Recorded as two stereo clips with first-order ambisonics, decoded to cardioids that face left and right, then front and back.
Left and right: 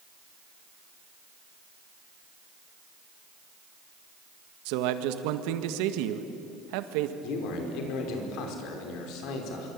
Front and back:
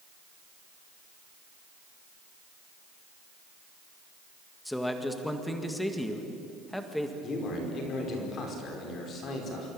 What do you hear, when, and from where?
4.7 s a man speaking: 85° right, 1.9 m
7.2 s a man speaking: 60° left, 5 m